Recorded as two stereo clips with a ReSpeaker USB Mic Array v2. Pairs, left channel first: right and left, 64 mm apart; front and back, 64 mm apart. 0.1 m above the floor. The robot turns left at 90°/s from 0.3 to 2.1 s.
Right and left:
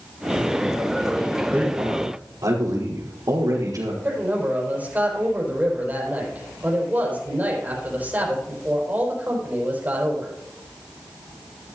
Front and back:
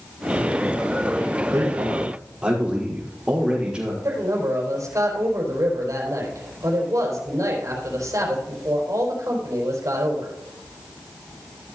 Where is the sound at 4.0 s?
155° left, 4.5 m.